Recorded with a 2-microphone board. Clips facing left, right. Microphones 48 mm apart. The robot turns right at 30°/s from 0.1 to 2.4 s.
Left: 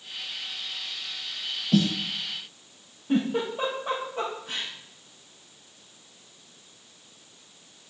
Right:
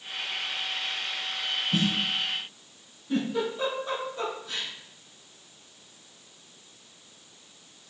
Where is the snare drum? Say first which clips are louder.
Left 5 dB; 85° left, 1.3 m.